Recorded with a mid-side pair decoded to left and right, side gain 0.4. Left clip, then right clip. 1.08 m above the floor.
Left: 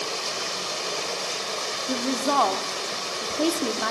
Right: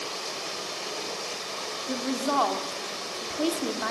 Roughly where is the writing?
No writing in this recording.